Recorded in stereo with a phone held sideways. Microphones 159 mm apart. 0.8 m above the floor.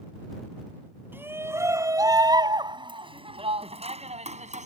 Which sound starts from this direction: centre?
A shout, at 1.1 s.